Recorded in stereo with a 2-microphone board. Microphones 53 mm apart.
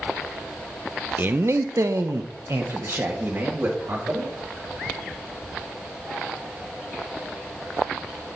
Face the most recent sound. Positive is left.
turn(degrees=-45)  # may be behind; listen again after turning